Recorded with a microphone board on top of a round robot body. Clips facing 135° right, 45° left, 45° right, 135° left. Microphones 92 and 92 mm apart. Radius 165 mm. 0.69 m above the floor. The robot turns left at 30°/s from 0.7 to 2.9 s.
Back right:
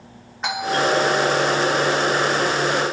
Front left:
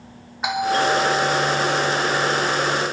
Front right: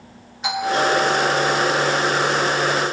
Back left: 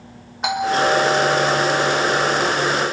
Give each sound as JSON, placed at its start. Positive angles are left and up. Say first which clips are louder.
{"t": 0.4, "sound": "a doorbell", "louder": "front left 1 dB, back left 2 dB", "azimuth_deg": 130, "distance_m": 4.0}